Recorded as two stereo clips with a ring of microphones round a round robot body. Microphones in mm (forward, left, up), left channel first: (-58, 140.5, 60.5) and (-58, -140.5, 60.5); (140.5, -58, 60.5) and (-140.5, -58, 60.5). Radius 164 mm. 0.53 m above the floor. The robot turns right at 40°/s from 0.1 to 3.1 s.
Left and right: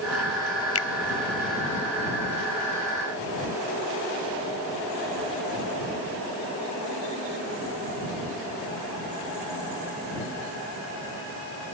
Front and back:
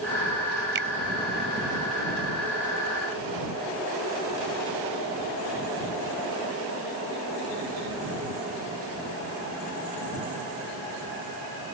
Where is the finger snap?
125° left; by 0.9 s 130° left.